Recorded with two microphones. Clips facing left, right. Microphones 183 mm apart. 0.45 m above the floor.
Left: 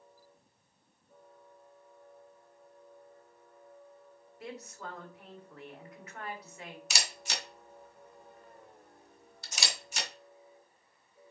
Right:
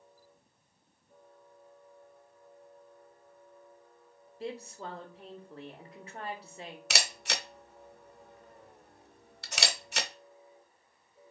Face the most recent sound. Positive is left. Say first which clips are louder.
# right 6 dB
turn(degrees=-65)  # may be behind; listen again after turning